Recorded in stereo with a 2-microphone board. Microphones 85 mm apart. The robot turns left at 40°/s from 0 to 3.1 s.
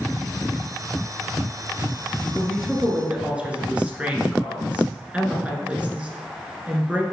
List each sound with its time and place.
2.4 s a woman speaking: centre (ahead or behind), 1.7 m; by 7.0 s 15° right (ahead or behind), 1.7 m